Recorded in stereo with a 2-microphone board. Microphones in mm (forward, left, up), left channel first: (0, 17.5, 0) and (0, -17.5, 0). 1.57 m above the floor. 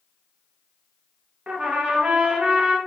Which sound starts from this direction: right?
A trumpet, at 1.5 s.